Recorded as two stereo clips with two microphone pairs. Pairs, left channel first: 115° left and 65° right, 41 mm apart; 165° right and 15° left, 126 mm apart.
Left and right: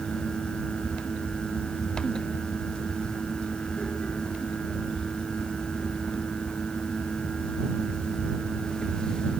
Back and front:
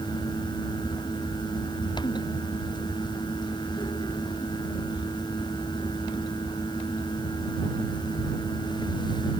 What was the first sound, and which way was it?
Only background noise.